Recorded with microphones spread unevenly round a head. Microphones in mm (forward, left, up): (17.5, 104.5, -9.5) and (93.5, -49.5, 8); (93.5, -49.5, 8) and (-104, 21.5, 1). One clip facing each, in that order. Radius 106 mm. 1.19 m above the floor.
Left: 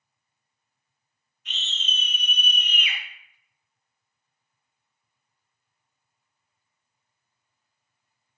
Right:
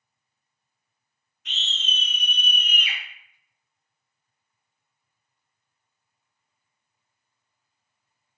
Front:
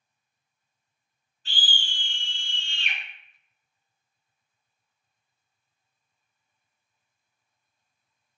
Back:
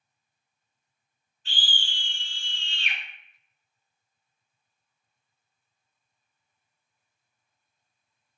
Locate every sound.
1.4 s a scream: 65° right, 1.5 m; by 3.0 s 15° right, 0.8 m